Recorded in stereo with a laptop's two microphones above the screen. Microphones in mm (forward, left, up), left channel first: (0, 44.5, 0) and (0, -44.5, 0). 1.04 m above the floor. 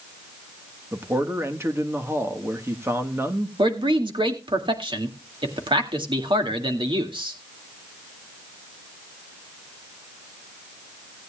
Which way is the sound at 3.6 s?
65° right (ahead or behind).